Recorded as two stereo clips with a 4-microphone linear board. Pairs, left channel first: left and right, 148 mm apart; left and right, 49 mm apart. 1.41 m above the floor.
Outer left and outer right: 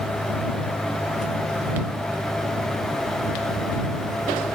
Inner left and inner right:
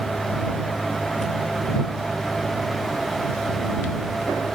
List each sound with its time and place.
Only background noise.